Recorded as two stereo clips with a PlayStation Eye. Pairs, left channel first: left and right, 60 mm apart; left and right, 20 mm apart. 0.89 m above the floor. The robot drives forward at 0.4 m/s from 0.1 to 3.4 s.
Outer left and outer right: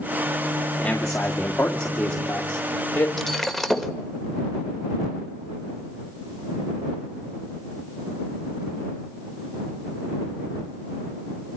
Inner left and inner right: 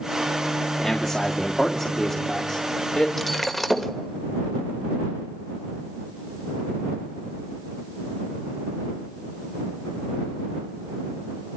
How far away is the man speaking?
About 2 m.